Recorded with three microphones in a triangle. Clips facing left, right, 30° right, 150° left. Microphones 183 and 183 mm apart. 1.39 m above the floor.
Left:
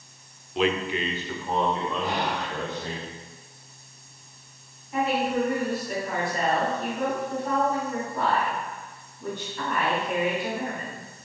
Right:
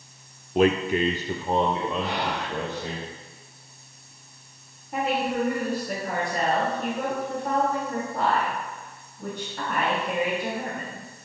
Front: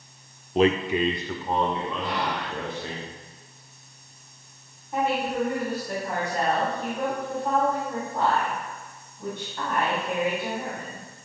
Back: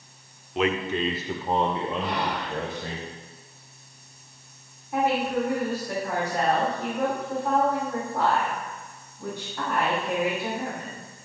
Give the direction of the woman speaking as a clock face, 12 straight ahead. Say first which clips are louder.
Left 1 dB, back 1 dB; 4 o'clock.